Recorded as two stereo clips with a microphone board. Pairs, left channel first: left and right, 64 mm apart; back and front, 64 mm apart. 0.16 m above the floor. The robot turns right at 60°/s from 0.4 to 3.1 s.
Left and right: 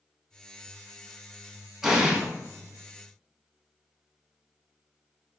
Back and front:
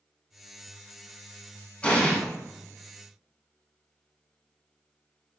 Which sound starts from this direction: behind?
An explosion, at 1.8 s.